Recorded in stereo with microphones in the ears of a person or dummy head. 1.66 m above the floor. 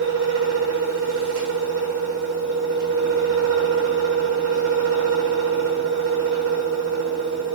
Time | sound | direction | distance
0.0 | a fan | 60° right (ahead or behind) | 0.7 m